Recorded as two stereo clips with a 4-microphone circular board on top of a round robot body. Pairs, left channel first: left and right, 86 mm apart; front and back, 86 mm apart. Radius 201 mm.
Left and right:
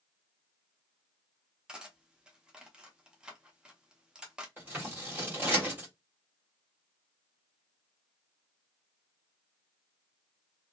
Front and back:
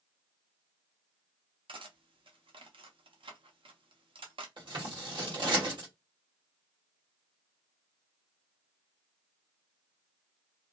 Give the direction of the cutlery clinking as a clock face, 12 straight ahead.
6 o'clock.